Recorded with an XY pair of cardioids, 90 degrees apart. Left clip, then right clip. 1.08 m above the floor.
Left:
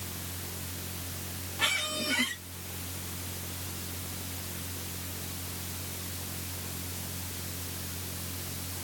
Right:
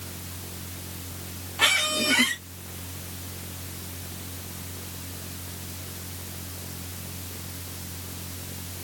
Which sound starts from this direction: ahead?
A machine running, at 0.0 s.